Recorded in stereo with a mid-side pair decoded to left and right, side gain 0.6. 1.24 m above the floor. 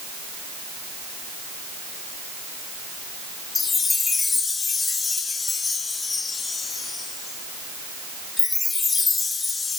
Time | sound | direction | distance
3.5 | a chime | 25° left | 2.5 m